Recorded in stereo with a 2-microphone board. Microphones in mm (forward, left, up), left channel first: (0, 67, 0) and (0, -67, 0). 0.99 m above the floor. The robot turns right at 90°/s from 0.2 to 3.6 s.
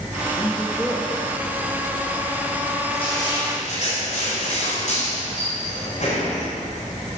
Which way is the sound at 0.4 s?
40° left (ahead or behind).